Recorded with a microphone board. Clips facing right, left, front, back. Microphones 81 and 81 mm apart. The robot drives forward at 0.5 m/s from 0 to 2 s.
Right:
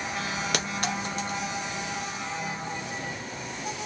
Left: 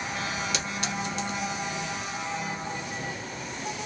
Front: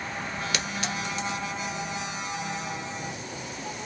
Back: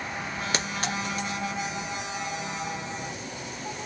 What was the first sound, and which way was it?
A clink, 125° right.